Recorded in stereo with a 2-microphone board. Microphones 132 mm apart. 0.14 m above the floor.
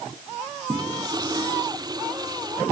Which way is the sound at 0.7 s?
30° right (ahead or behind).